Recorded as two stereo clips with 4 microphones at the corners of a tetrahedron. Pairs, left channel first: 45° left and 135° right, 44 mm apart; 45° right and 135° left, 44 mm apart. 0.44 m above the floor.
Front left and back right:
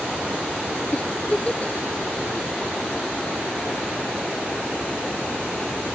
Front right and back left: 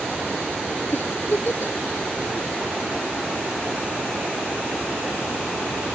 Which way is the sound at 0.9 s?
15° right.